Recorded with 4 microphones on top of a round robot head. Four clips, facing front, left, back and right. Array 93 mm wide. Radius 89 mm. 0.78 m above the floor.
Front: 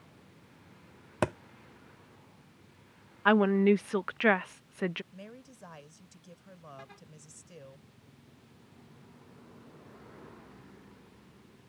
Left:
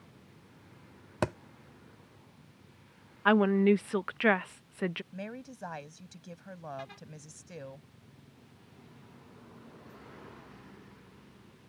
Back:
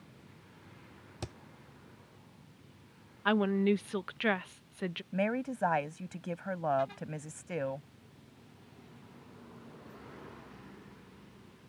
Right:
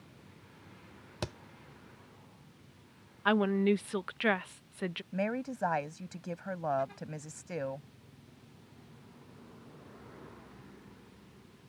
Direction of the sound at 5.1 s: 150° right.